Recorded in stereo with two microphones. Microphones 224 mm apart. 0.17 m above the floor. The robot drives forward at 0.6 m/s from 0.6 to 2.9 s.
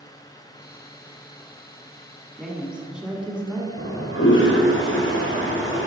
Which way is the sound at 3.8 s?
60° left (ahead or behind).